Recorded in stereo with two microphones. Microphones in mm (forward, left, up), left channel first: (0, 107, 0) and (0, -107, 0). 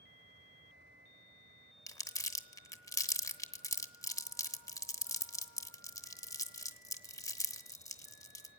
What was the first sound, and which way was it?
Crumpling, 15° left (ahead or behind).